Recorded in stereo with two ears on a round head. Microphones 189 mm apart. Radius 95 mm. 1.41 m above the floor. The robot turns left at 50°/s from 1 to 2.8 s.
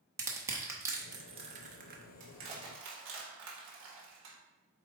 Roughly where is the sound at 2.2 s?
Right.